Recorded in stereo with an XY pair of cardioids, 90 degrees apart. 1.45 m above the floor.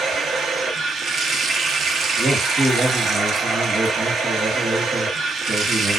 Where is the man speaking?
50° right, 1.3 m.